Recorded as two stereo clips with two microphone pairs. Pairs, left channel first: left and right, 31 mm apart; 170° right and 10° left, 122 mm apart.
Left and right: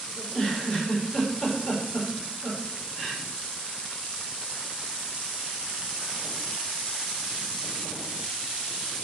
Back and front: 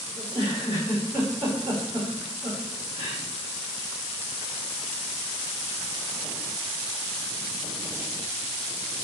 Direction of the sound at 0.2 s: 40° left.